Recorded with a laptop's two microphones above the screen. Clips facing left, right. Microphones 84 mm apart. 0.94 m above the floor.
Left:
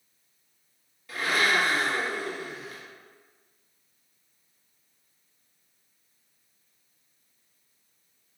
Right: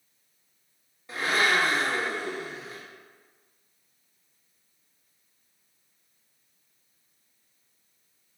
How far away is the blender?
About 0.6 m.